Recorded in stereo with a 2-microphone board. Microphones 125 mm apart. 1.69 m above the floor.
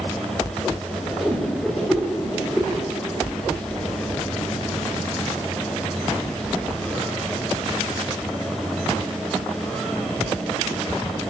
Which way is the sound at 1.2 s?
5° right (ahead or behind).